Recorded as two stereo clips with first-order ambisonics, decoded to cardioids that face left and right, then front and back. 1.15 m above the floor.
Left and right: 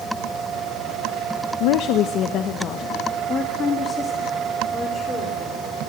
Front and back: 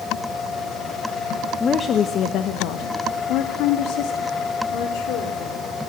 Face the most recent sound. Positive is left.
turn(degrees=10)